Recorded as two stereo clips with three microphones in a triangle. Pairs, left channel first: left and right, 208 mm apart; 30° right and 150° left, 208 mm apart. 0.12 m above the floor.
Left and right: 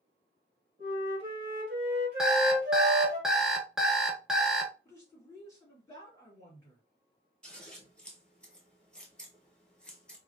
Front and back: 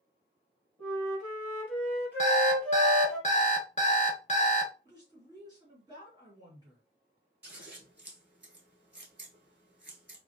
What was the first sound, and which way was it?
A flute, 110° right.